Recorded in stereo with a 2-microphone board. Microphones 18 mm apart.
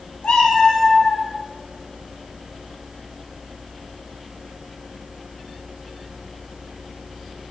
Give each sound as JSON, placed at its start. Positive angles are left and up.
{"t": 0.2, "sound": "a cat meowing", "side_deg": 70, "distance_m": 0.7}